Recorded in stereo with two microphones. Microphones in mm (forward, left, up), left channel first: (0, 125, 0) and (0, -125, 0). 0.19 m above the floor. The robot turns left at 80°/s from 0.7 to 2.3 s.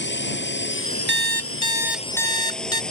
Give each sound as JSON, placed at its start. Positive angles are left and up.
{"t": 0.0, "sound": "a drone", "azimuth_deg": 130}
{"t": 1.1, "sound": "an alarm clock", "azimuth_deg": -105}